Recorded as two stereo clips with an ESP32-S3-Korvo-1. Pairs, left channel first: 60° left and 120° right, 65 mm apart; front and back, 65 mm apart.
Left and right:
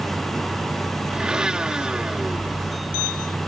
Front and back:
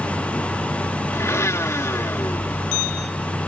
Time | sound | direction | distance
1.1 | a blender | 45° right | ?